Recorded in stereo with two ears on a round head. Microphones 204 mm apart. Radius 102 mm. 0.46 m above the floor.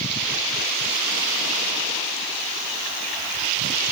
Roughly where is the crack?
No crack in this recording.